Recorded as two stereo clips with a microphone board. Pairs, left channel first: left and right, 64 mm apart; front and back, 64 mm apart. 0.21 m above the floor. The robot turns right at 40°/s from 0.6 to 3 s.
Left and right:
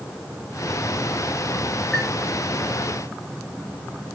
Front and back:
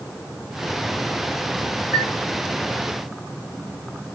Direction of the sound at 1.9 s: 175° left.